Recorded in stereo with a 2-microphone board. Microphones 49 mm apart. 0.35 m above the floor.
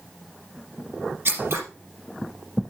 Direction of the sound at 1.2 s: 50° right (ahead or behind).